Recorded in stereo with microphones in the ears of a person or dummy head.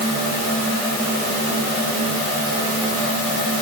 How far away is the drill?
No drill in this recording.